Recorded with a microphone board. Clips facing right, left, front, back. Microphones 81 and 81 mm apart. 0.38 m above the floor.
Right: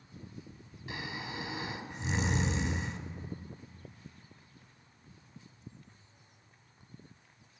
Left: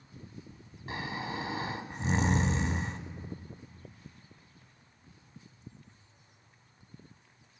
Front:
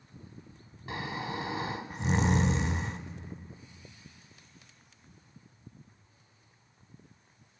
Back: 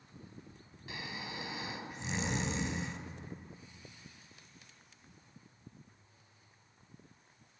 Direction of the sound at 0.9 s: 45° left.